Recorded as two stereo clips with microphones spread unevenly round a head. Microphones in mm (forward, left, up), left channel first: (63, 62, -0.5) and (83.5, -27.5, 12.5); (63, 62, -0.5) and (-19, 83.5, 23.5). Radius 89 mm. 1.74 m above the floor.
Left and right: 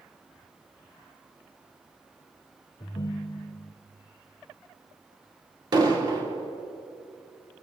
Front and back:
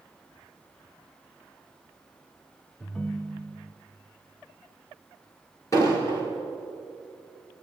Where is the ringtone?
85° left, 0.7 m.